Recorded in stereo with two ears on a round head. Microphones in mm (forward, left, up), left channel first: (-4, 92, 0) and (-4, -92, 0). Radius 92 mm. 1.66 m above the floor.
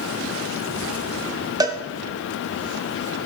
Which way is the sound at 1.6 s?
20° right (ahead or behind).